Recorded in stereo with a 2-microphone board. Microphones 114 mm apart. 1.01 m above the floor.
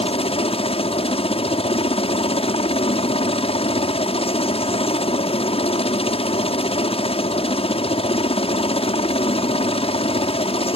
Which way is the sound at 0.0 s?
60° left (ahead or behind).